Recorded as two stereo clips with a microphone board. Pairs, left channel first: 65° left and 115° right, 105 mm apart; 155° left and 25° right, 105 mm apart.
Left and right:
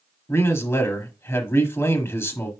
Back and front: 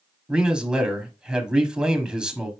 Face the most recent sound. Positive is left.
turn(degrees=50)